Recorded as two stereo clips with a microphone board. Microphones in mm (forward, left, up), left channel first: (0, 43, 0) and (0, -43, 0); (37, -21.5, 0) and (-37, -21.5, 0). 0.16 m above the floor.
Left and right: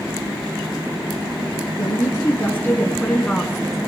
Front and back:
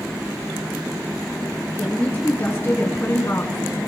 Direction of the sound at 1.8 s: 55° left.